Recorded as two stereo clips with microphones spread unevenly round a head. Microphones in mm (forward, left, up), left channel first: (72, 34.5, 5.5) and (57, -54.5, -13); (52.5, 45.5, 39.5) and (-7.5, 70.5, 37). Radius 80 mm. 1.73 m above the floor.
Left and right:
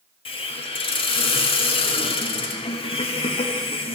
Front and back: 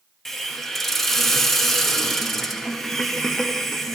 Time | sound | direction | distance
0.2 | a hiss | 65° left | 1.1 m